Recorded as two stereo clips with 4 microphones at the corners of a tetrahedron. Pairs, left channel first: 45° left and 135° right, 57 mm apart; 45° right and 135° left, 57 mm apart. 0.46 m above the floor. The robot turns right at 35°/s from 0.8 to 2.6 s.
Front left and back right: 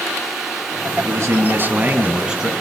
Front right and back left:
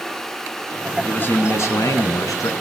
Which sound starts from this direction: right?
A man speaking, at 1.1 s.